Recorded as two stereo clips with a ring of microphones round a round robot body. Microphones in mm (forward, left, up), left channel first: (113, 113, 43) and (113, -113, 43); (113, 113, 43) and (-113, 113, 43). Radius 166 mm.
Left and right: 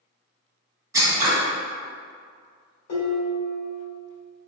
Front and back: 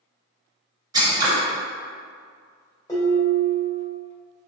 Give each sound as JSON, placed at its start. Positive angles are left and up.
{"t": 0.9, "sound": "scissors", "azimuth_deg": -140, "distance_m": 1.1}
{"t": 2.9, "sound": "dishes clattering", "azimuth_deg": 75, "distance_m": 2.0}